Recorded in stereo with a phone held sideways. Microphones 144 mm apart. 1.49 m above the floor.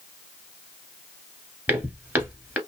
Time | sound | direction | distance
1.7 | footsteps | 10° right (ahead or behind) | 1.5 m